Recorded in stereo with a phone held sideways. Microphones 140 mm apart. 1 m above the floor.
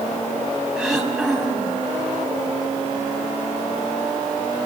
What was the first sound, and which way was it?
Throat clearing, 5° right (ahead or behind).